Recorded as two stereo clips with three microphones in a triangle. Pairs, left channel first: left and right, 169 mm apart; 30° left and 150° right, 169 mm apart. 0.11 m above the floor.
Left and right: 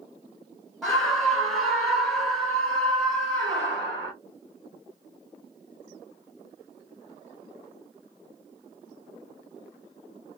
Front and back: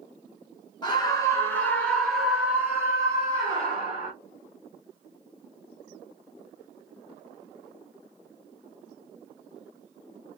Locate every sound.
0.8 s a scream: 5° left, 1.4 m; by 4.1 s straight behind, 1.7 m